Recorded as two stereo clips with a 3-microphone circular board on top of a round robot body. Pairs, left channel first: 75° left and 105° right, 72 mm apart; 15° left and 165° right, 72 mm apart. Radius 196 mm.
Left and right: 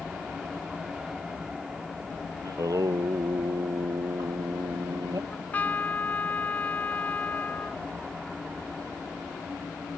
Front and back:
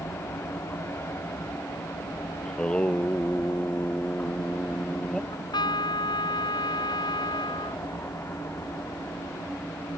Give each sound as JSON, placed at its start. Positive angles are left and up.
{"t": 0.0, "sound": "an aircraft", "azimuth_deg": -25}
{"t": 2.5, "sound": "singing", "azimuth_deg": -65}
{"t": 5.3, "sound": "a trumpet", "azimuth_deg": 5}